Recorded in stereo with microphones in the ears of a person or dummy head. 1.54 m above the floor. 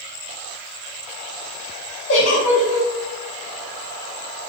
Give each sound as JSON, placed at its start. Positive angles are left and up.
{"t": 2.1, "sound": "a giggle", "side_deg": 50, "distance_m": 0.6}